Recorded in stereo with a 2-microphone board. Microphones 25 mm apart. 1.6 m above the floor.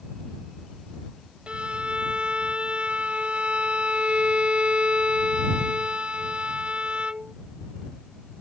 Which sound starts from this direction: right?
A violin, at 1.5 s.